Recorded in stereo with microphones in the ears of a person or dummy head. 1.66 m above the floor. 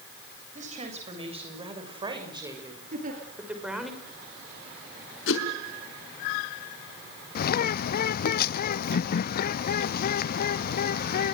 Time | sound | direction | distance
0.6 | a woman speaking | 45° right (ahead or behind) | 8 m
2.9 | a giggle | 50° right (ahead or behind) | 7 m
5.3 | a whoosh | 75° left (ahead or behind) | 5 m
7.3 | a bird | 50° left (ahead or behind) | 0.6 m